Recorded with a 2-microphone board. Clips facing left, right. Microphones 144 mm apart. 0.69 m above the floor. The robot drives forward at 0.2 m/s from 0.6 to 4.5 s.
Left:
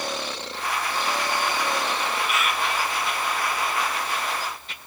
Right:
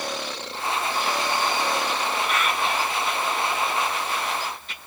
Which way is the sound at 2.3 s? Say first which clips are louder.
Right 1 dB; 5° left (ahead or behind).